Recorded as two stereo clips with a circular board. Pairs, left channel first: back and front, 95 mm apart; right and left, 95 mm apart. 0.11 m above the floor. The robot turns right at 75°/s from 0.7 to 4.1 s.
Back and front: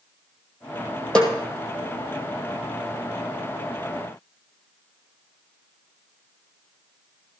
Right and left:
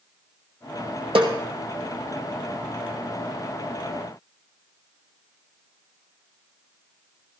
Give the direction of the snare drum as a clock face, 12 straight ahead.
9 o'clock.